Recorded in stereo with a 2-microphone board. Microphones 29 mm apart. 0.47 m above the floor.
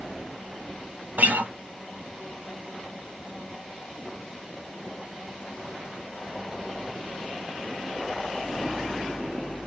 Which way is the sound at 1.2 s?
75° right (ahead or behind).